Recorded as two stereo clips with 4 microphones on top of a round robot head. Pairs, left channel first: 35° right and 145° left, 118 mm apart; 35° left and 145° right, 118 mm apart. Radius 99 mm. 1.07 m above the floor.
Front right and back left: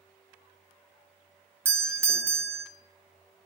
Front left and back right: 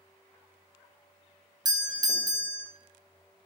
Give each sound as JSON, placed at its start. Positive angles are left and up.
{"t": 1.6, "sound": "a doorbell", "azimuth_deg": -160, "distance_m": 0.6}